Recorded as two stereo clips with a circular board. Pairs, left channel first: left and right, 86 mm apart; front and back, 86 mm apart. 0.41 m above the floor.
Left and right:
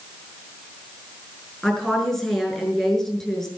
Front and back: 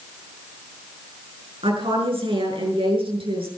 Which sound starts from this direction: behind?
A woman speaking, at 1.6 s.